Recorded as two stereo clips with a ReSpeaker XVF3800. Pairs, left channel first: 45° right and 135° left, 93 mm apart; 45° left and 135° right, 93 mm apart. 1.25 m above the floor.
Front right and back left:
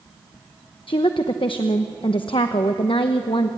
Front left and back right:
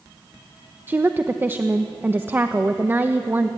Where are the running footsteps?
No running footsteps in this recording.